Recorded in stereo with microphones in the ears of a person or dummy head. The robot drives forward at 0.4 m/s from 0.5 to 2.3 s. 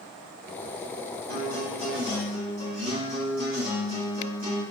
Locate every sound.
1.3 s a guitar: 45° right (ahead or behind), 1.8 m; by 4.6 s 35° right (ahead or behind), 2 m